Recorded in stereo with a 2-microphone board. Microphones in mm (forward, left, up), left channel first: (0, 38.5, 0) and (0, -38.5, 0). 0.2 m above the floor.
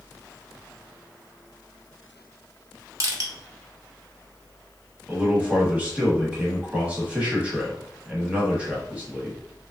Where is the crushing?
45° right (ahead or behind), 0.8 m.